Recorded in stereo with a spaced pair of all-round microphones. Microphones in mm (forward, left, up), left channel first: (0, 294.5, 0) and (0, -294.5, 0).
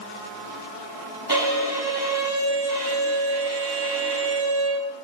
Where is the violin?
40° right (ahead or behind), 6.5 m.